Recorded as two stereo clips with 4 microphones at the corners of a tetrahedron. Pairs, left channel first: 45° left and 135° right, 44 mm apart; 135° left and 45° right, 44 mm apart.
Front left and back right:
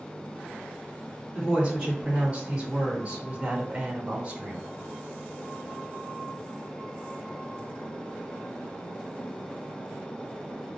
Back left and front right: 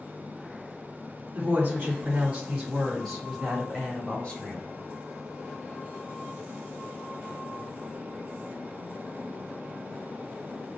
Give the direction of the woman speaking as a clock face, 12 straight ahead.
3 o'clock.